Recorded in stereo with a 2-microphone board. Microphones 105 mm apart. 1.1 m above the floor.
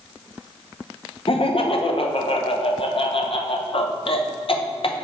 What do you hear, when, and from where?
1.3 s laughter: 60° left (ahead or behind), 0.7 m